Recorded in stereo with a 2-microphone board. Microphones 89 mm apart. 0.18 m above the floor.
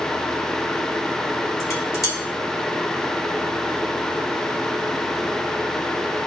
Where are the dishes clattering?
40° left (ahead or behind), 2.0 m.